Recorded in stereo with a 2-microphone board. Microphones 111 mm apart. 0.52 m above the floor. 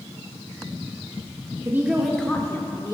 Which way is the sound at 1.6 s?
25° right (ahead or behind).